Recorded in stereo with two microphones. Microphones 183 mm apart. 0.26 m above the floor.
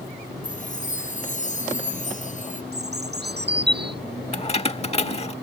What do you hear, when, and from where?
0.4 s a chime: 45° left (ahead or behind)
2.7 s a bird: 65° right (ahead or behind)
4.3 s keys jangling: 35° left (ahead or behind)